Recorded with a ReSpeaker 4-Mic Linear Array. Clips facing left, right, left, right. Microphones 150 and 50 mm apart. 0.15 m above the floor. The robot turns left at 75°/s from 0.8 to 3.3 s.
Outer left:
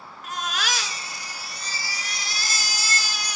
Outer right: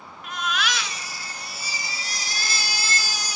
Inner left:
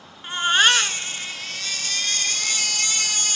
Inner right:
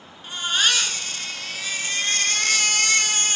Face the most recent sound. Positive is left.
turn(degrees=-135)